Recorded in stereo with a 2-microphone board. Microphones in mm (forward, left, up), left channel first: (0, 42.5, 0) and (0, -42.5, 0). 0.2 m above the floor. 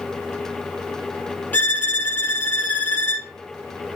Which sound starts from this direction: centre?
A violin, at 1.5 s.